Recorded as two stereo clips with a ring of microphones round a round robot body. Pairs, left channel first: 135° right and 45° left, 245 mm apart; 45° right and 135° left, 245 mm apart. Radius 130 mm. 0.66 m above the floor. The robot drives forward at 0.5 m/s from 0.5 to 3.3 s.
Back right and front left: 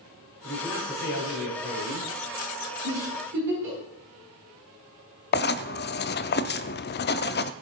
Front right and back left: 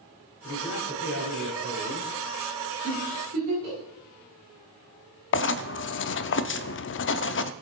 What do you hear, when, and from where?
0.4 s a man speaking: 5° right, 4.5 m
2.8 s a giggle: 80° left, 8 m; by 3.8 s 85° left, 8 m
5.3 s writing: 85° right, 0.6 m